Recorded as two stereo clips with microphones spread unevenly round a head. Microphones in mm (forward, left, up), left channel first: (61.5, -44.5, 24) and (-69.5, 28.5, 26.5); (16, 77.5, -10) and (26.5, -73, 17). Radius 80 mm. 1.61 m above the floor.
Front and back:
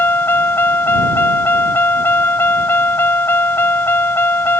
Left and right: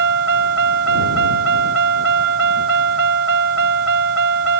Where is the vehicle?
105° right.